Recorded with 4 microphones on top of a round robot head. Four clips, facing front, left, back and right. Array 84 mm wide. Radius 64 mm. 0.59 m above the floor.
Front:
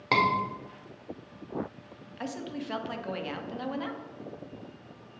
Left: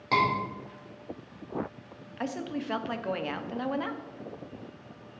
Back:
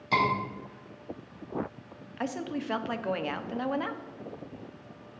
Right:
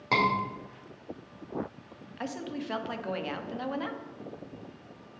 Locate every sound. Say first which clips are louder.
0.1 s a scream: left 1 dB, front 1 dB; 10° right, 2.5 m
2.2 s a woman speaking: left 2 dB, back 3 dB; 155° left, 0.8 m